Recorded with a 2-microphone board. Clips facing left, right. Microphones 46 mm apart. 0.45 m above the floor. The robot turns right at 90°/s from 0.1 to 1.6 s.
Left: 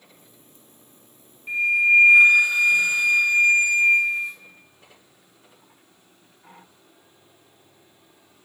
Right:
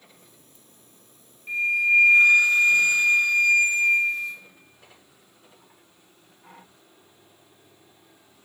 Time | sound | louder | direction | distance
1.5 | a flute | left 3 dB | 10° left (ahead or behind) | 1.3 m